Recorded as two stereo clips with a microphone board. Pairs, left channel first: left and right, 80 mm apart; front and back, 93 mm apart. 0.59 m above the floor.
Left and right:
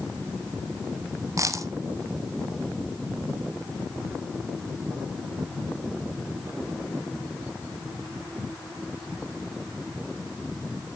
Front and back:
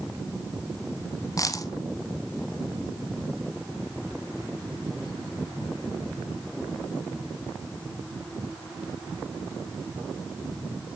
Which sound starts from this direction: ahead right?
A dropped coin, at 1.4 s.